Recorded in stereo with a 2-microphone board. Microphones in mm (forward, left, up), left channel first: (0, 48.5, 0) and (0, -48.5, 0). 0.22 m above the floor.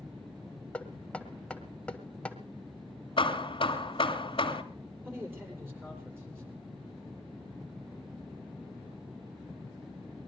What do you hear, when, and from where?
0.7 s knocking: 10° left (ahead or behind), 1.6 m
3.2 s hammering: 65° left (ahead or behind), 1.5 m
5.0 s a man speaking: 25° right (ahead or behind), 7 m